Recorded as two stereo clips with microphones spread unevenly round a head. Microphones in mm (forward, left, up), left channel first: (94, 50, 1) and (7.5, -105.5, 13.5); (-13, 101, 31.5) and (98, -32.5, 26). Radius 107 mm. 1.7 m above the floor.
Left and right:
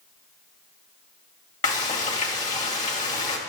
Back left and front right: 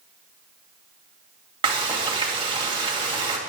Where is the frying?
10° left, 2.5 m.